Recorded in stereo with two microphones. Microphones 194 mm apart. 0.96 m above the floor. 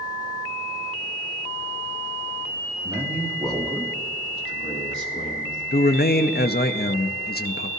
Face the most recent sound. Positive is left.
turn(degrees=55)  # may be behind; listen again after turning